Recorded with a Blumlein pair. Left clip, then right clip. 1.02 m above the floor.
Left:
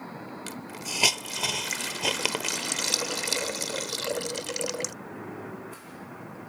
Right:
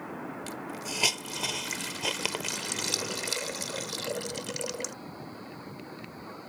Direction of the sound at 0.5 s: 10° left.